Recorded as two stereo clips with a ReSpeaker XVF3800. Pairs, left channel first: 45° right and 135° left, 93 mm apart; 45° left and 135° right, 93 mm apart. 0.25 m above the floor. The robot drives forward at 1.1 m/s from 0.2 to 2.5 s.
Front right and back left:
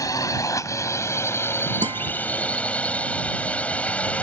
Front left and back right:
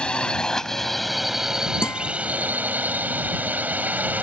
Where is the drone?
30° right; by 4.2 s 95° right.